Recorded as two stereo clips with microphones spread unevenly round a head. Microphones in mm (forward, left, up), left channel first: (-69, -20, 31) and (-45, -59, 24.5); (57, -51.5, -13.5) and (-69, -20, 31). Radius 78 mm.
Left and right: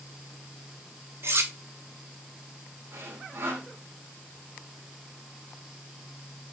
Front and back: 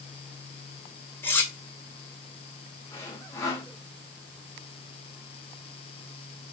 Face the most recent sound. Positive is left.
turn(degrees=-80)